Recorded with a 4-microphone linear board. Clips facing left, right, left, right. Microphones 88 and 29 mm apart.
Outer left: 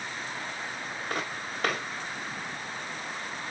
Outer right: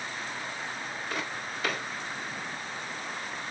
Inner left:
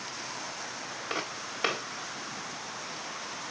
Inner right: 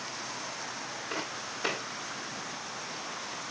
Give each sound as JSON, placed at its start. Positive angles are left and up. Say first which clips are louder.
{"t": 1.1, "sound": "footsteps", "louder": "outer left 2 dB, inner left 2 dB", "side_deg": 50, "distance_m": 4.0}